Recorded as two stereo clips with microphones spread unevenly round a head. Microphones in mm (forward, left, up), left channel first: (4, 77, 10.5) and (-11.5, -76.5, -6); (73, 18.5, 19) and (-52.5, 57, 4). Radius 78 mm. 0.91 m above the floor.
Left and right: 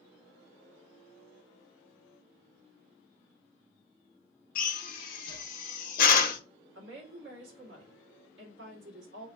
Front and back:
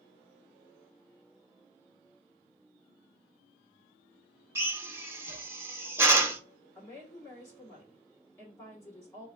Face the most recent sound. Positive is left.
turn(degrees=-90)